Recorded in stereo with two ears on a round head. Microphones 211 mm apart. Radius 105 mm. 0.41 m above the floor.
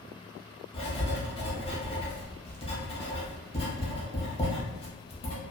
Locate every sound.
0.7 s writing: 25° left (ahead or behind), 0.8 m